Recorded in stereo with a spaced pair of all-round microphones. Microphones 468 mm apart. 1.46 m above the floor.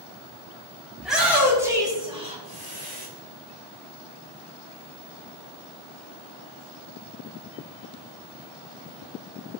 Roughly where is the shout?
Centre.